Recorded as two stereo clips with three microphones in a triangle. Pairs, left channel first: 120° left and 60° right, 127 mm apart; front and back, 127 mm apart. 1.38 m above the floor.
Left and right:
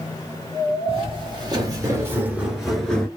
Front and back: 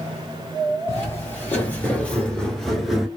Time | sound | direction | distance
0.9 | footsteps | 60° right | 1.8 m